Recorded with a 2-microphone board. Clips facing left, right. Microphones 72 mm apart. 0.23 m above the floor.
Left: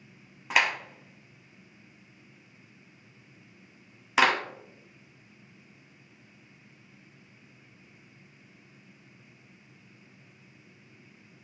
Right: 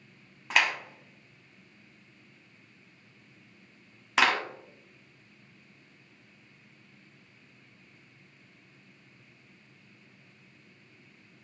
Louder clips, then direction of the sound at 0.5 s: Left 1 dB; centre (ahead or behind).